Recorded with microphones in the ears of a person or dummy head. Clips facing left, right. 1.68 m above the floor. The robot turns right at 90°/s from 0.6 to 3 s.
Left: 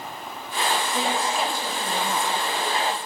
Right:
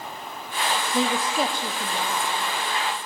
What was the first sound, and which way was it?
A man speaking, 75° right.